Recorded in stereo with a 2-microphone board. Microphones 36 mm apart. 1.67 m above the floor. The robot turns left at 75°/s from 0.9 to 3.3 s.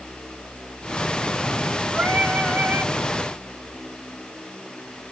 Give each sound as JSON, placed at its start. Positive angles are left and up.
{"t": 1.9, "sound": "singing", "azimuth_deg": -35, "distance_m": 1.4}